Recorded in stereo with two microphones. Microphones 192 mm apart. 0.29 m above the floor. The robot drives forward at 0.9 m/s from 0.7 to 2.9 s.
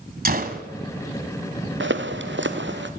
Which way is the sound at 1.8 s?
75° right (ahead or behind).